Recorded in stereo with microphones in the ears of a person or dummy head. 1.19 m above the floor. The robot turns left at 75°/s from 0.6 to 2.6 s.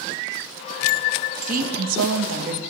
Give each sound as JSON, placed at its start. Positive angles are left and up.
{"t": 1.5, "sound": "a woman speaking", "azimuth_deg": -45, "distance_m": 1.0}